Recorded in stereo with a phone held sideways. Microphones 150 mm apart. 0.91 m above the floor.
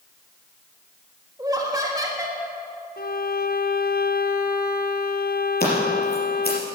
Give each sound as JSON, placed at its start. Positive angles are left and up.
{"t": 1.4, "sound": "laughter", "side_deg": -20, "distance_m": 1.5}
{"t": 3.0, "sound": "a violin", "side_deg": 70, "distance_m": 0.6}
{"t": 5.6, "sound": "scissors", "side_deg": 75, "distance_m": 4.5}